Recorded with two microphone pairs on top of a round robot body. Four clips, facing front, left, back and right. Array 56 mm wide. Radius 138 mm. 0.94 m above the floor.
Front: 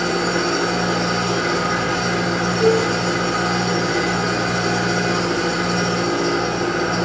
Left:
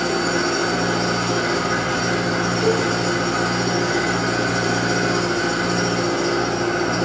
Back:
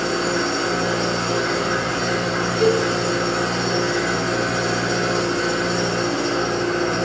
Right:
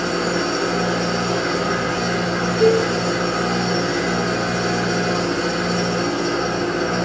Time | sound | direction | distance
0.0 | an engine running | 10° left | 2.5 m
2.6 | a cowbell | 80° right | 1.2 m